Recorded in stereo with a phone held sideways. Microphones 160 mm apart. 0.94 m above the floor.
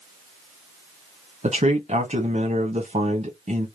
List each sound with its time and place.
1.4 s a man speaking: 45° right (ahead or behind), 1.2 m